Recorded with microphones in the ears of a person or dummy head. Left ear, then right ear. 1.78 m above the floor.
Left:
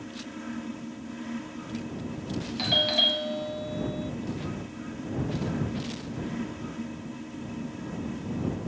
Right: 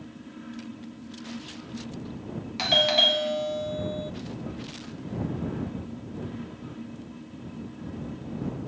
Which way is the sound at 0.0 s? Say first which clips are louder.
Left 5 dB; 20° left (ahead or behind).